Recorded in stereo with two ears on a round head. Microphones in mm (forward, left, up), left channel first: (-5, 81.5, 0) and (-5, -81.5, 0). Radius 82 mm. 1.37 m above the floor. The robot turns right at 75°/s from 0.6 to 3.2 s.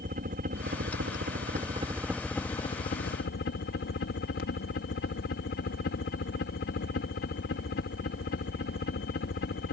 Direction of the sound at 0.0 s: 125° right.